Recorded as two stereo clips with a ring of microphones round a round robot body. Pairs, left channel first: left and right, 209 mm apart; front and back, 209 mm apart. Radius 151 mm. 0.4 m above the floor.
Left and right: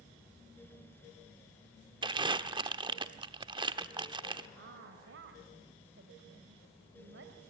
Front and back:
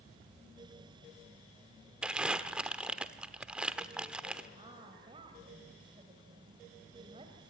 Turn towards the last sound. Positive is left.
turn(degrees=-115)